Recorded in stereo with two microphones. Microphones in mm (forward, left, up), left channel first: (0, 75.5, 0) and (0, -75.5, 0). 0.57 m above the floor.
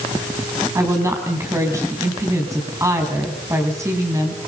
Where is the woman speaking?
20° right (ahead or behind), 5 m.